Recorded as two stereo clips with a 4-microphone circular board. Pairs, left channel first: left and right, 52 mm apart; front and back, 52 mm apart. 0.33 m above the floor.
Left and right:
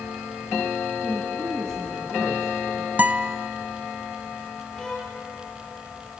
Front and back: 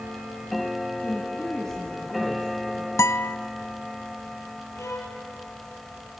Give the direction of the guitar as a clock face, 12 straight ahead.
1 o'clock.